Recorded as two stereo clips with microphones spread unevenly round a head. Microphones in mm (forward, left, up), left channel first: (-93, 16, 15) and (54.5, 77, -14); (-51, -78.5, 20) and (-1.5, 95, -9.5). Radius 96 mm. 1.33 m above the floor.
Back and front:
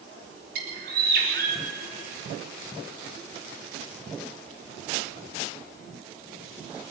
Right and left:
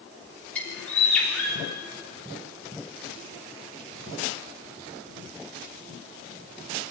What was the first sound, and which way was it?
A bird, 20° right.